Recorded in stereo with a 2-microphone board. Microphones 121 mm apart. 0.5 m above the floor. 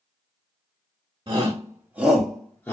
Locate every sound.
1.3 s a shout: 35° right (ahead or behind), 1.4 m; by 2.7 s 20° left (ahead or behind), 1.2 m